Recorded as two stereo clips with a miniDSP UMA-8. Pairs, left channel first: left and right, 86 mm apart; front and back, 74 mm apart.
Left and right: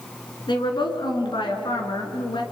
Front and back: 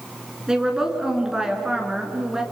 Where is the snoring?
No snoring in this recording.